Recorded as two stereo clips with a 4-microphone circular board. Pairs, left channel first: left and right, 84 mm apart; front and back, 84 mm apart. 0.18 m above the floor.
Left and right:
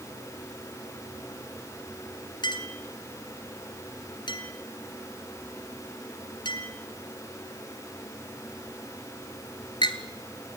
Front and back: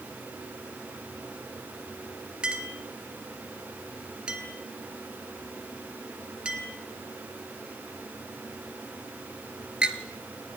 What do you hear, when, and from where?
2.4 s a clink: 100° left, 1.9 m